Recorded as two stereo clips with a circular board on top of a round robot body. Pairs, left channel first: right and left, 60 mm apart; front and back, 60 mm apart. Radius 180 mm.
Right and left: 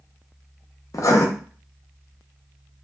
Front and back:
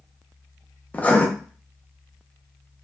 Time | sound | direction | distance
0.9 | writing | 65° right | 0.8 m